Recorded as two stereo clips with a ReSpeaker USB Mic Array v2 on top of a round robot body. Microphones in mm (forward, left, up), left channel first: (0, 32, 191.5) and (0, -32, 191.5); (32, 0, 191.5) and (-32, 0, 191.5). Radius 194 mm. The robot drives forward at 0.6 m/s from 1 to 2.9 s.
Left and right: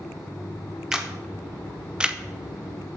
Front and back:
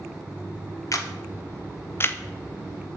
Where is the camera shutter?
10° right, 1.5 m; by 2.2 s 25° right, 1.0 m.